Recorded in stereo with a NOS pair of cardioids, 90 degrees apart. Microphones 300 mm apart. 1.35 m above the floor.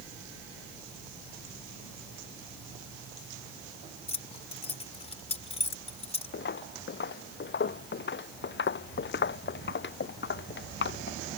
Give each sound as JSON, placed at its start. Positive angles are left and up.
{"t": 4.1, "sound": "keys jangling", "azimuth_deg": 20}
{"t": 6.3, "sound": "footsteps", "azimuth_deg": 35}